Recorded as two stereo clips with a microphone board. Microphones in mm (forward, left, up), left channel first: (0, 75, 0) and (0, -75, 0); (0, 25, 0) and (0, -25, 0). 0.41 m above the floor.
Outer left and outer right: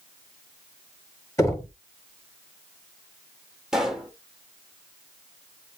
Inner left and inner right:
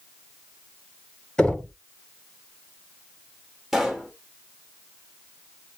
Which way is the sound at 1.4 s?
20° left (ahead or behind).